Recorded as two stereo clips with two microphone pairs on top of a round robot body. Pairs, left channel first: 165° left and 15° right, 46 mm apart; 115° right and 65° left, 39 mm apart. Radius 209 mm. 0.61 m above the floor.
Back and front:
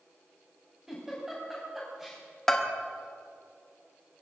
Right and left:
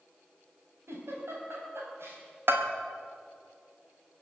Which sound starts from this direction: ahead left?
A giggle, at 0.9 s.